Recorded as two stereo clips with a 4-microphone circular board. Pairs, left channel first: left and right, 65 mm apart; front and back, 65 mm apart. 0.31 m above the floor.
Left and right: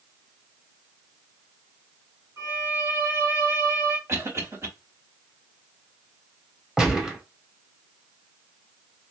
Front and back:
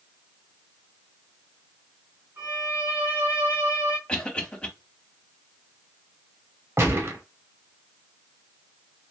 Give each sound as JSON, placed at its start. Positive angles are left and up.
{"t": 2.4, "sound": "a violin", "azimuth_deg": -130, "distance_m": 2.5}
{"t": 4.1, "sound": "a cough", "azimuth_deg": -70, "distance_m": 2.5}
{"t": 6.8, "sound": "a gunshot", "azimuth_deg": -165, "distance_m": 1.1}